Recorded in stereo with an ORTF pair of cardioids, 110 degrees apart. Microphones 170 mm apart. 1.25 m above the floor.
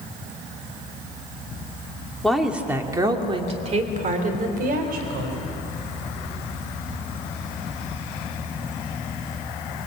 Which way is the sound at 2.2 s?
5° left.